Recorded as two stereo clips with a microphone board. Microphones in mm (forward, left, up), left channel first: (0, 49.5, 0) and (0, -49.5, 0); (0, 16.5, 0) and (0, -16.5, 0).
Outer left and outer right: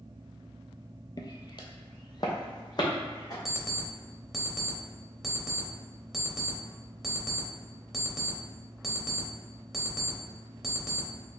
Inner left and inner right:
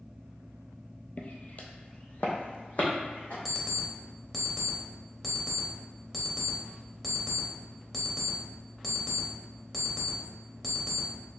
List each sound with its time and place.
1.2 s footsteps: 45° left (ahead or behind), 0.5 m
3.5 s an alarm clock: centre (ahead or behind), 0.9 m